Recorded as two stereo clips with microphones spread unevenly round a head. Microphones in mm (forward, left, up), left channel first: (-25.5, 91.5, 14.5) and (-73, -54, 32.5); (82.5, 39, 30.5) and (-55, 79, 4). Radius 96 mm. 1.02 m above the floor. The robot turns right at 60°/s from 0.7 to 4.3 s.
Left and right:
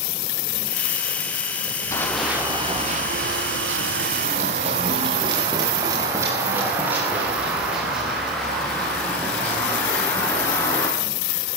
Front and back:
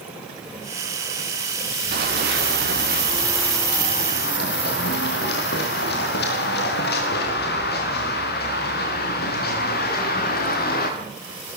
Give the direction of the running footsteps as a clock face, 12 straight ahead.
7 o'clock.